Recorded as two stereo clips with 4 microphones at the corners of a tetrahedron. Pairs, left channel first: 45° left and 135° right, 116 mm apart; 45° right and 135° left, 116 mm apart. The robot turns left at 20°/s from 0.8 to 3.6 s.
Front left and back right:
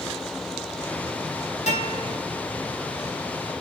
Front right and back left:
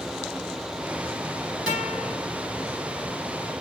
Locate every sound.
1.7 s a guitar: 50° left, 4.5 m; by 2.2 s 40° left, 4.5 m